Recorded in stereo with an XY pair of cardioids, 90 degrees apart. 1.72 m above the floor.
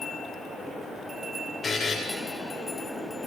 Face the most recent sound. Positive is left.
turn(degrees=40)